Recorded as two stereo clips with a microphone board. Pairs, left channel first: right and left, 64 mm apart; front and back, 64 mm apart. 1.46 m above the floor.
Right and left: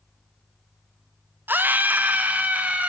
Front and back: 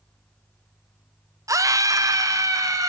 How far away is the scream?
About 0.6 m.